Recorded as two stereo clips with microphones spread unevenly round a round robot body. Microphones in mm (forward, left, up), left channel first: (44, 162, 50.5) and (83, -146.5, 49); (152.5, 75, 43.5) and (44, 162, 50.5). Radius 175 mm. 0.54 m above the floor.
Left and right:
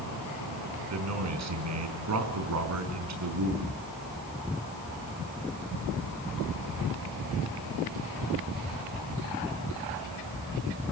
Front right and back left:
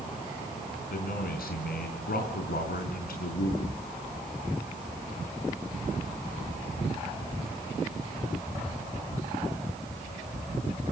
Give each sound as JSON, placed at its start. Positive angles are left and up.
{"t": 0.9, "sound": "a man speaking", "azimuth_deg": -45, "distance_m": 5.0}